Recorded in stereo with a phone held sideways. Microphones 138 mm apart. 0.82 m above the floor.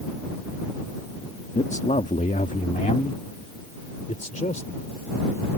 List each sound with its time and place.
1.6 s a man speaking: 55° left (ahead or behind); by 4.7 s 70° left (ahead or behind)